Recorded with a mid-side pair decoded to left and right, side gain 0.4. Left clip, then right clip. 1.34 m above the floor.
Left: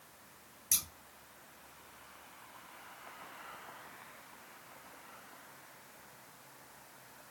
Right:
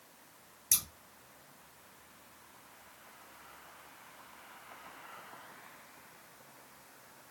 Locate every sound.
0.7 s scissors: 35° right, 0.9 m